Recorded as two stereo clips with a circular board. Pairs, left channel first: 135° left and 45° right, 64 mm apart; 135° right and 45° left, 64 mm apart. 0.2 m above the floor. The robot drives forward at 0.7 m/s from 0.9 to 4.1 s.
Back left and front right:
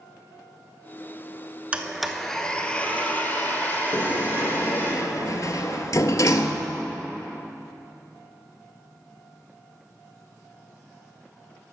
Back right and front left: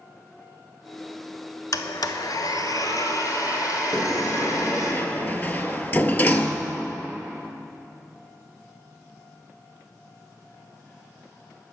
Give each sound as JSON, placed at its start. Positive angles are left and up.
{"t": 1.7, "sound": "a blender", "azimuth_deg": -115, "distance_m": 0.5}
{"t": 3.9, "sound": "a sliding door", "azimuth_deg": 160, "distance_m": 0.6}